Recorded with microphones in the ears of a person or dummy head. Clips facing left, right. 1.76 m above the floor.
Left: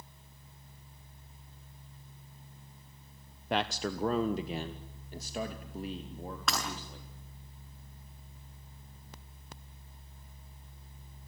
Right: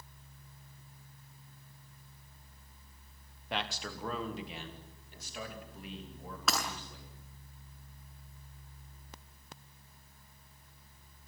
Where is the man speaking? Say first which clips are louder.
Left 7 dB; 45° left (ahead or behind), 0.9 m; by 7.1 s 35° left (ahead or behind), 3.5 m.